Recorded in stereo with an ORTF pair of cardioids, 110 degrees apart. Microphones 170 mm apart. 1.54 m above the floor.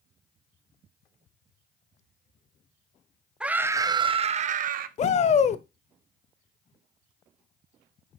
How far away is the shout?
About 0.9 m.